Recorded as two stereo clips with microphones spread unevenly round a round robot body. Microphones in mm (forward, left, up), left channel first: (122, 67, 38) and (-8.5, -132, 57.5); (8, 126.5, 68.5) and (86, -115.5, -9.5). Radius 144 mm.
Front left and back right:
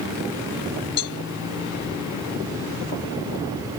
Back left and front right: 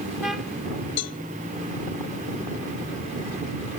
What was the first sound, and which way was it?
A cowbell, 80° left.